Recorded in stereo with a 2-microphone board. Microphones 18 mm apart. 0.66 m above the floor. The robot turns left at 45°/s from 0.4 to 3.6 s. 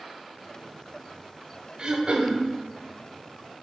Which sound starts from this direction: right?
Throat clearing, at 1.8 s.